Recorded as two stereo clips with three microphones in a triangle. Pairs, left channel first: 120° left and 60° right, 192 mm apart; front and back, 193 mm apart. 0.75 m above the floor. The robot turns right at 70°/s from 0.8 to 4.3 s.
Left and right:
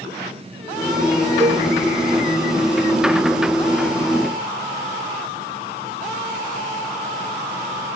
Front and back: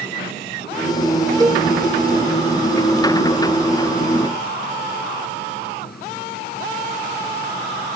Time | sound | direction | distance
1.4 | a cowbell | 110° right | ?